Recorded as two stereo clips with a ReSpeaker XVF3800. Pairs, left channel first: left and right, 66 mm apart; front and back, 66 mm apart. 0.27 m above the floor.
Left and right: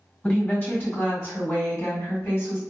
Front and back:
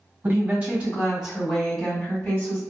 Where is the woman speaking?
145° left, 1.8 m; by 2.6 s 60° left, 2 m.